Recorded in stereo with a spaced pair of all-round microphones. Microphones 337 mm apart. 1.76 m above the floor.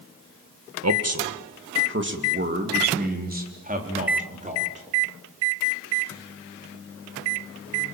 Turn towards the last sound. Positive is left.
turn(degrees=-20)  # may be behind; listen again after turning